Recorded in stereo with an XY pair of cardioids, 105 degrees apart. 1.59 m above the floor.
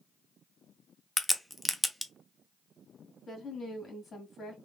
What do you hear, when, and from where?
1.2 s a crack: 5° left, 0.6 m
3.3 s a woman speaking: 40° left, 1.9 m